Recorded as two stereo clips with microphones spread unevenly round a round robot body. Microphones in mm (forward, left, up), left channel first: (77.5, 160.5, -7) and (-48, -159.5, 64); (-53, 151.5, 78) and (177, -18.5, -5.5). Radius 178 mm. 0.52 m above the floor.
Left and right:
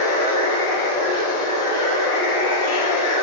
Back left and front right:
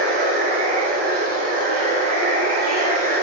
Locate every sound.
0.0 s running water: straight ahead, 1.5 m